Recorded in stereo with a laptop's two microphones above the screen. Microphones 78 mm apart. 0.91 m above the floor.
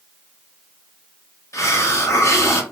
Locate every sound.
1.5 s a hiss: 40° left (ahead or behind), 0.9 m